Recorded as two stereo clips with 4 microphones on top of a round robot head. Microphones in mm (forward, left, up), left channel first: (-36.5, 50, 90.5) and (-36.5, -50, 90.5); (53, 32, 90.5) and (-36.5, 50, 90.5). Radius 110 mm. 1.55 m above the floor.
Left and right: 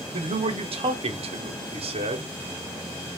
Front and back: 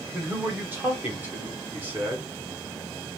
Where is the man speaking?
115° right, 0.8 m.